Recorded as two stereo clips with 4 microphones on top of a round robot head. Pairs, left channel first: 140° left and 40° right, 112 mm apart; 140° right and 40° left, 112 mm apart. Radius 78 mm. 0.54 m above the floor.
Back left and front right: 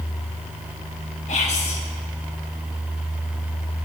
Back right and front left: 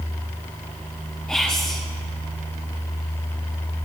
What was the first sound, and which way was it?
Whispering, 140° left.